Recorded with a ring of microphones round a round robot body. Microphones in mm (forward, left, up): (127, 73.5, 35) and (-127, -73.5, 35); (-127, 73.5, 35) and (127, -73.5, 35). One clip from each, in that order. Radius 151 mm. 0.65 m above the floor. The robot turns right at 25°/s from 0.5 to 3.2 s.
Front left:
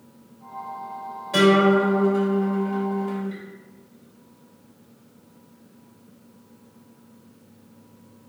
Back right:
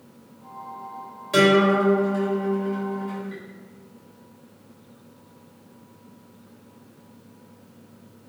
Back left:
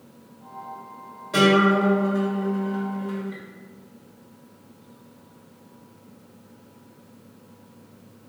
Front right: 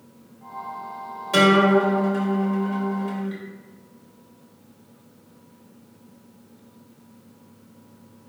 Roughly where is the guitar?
Right.